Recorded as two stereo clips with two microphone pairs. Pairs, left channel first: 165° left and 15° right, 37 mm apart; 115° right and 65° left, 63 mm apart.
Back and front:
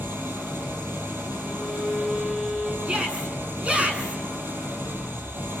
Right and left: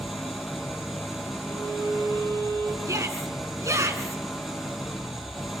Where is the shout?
40° left, 4 m.